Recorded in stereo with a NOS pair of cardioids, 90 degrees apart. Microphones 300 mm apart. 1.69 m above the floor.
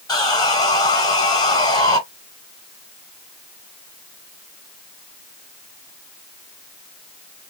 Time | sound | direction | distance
0.1 | sawing | 15° left | 1.5 m